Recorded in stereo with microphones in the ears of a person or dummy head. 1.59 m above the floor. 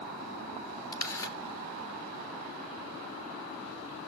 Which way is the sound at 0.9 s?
15° left (ahead or behind).